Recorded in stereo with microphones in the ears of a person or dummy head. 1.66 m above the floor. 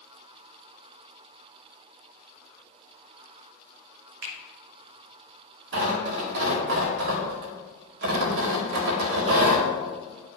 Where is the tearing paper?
60° right (ahead or behind), 1.8 m.